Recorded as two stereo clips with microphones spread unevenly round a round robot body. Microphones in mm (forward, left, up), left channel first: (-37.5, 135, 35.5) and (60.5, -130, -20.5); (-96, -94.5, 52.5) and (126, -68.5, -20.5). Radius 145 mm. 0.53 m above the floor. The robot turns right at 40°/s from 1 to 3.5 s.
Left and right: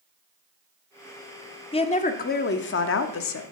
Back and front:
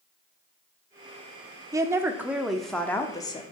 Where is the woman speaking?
35° left, 0.8 m; by 3.4 s 105° left, 0.8 m.